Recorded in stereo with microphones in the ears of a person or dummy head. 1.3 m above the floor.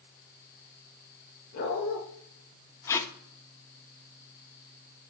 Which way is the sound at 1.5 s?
55° left (ahead or behind).